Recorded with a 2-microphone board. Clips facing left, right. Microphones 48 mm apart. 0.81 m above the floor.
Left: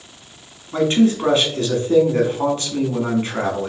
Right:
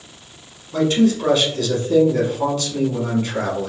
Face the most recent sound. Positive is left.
turn(degrees=35)  # may be behind; listen again after turning